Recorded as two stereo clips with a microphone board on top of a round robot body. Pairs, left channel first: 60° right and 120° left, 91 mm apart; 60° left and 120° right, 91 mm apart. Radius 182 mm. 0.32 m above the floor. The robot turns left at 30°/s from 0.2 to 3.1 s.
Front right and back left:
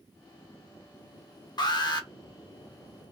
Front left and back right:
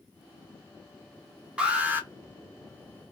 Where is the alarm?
45° right, 1.3 m; by 2.1 s 60° right, 1.3 m.